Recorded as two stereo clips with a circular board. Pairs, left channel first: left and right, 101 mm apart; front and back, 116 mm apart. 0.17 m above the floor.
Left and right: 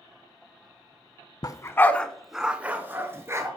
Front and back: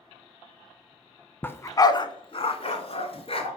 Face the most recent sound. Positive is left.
turn(degrees=-30)